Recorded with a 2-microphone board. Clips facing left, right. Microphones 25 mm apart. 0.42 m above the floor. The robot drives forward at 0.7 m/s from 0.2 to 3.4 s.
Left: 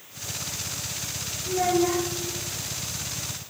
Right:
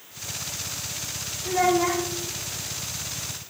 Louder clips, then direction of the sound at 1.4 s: Right 2 dB; 60° right (ahead or behind).